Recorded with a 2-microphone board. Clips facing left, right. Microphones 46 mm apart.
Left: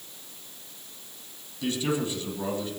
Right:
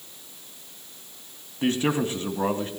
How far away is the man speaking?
About 2 m.